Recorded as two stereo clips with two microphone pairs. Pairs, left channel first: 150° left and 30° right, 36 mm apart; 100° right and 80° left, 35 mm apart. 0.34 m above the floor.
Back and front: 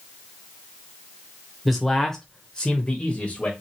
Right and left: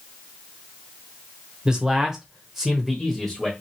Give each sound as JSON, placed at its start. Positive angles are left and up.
{"t": 1.6, "sound": "a man speaking", "azimuth_deg": 65, "distance_m": 1.0}